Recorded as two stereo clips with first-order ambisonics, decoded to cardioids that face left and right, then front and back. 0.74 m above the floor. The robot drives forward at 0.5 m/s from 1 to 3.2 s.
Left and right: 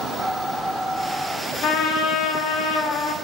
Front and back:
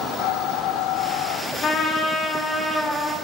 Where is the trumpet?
55° left, 1.1 m; by 3.1 s 105° left, 1.0 m.